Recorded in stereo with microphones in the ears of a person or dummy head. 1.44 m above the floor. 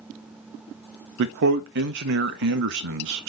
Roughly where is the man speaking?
Right.